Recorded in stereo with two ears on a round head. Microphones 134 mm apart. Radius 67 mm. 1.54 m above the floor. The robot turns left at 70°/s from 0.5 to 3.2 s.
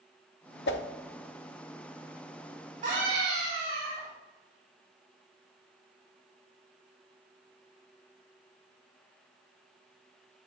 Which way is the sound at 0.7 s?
85° left.